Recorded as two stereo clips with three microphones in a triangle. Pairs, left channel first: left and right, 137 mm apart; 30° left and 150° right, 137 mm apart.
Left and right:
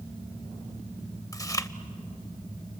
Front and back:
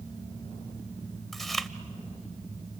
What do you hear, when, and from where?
1.3 s chewing: 115° left, 0.8 m